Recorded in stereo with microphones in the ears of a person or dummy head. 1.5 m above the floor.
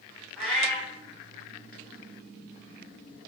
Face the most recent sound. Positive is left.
turn(degrees=0)  # may be behind; listen again after turning